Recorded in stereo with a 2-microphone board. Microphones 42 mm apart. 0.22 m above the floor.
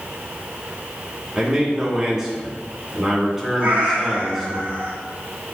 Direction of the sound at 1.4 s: 15° right (ahead or behind).